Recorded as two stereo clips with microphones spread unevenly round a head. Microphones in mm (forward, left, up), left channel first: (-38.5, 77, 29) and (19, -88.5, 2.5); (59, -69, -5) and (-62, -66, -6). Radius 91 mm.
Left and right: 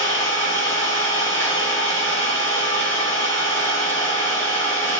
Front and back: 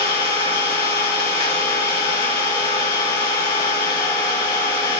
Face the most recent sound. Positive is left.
turn(degrees=30)